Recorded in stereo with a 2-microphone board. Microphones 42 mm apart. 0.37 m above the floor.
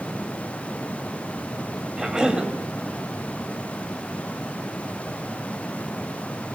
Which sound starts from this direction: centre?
A cough, at 2.0 s.